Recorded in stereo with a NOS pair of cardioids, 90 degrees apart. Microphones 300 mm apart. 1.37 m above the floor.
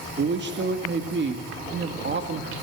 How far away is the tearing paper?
I don't hear tearing paper.